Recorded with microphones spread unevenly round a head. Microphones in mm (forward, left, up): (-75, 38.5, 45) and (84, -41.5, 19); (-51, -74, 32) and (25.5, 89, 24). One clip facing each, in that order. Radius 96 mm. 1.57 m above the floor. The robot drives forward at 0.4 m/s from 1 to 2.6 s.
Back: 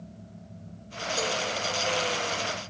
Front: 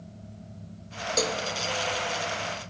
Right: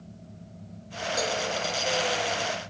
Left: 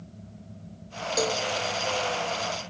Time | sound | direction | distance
1.2 | a cowbell | 10° left | 1.2 m